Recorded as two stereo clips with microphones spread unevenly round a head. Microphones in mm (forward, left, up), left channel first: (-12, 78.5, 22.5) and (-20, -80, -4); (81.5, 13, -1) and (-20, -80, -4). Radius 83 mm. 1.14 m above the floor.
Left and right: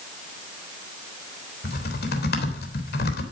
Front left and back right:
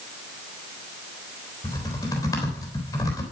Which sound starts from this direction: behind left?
Typing on a keyboard, at 1.6 s.